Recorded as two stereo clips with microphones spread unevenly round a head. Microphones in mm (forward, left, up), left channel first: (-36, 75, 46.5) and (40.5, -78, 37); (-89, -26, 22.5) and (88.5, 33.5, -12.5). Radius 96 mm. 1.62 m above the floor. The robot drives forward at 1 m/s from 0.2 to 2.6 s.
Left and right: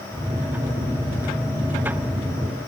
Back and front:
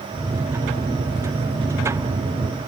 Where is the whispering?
I don't hear whispering.